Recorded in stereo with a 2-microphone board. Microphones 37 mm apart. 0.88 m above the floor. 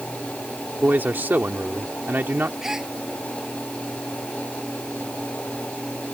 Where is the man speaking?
75° right (ahead or behind).